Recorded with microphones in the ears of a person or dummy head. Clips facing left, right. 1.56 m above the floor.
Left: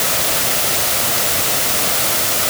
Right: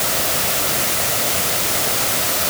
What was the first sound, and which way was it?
Only background noise.